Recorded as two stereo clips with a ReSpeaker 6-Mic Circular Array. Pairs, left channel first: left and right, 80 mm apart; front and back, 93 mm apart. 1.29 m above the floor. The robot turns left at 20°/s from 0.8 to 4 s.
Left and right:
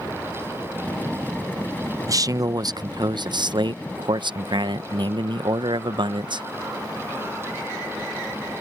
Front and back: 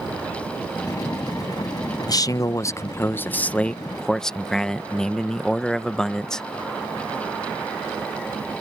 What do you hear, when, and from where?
2.1 s a man speaking: 45° right; by 6.5 s 85° right